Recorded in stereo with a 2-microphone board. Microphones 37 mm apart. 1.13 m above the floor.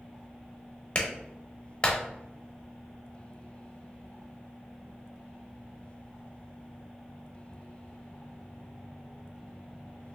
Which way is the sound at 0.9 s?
30° left (ahead or behind).